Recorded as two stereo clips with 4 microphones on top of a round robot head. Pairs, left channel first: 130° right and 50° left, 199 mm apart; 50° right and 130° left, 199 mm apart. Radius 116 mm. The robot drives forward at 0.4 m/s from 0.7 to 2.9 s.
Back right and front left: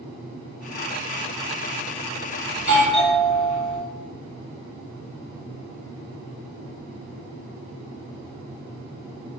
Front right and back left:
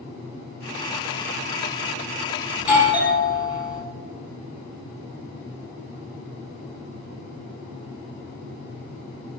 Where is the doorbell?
100° right, 1.6 m; by 3.8 s 105° right, 1.7 m.